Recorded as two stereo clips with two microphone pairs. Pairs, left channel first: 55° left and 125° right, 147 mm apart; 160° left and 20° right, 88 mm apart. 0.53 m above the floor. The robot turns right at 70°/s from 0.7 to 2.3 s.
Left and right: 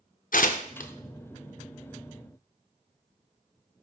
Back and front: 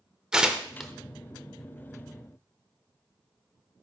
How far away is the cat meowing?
No cat meowing in this recording.